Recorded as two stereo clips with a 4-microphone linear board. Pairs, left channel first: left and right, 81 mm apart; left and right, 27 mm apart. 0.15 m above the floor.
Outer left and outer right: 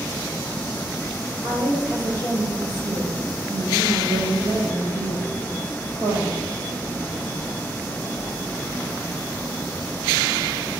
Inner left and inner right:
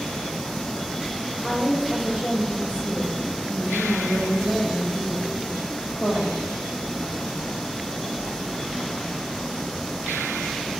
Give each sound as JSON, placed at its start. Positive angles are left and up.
{"t": 1.4, "sound": "a woman speaking", "side_deg": -60, "distance_m": 5.0}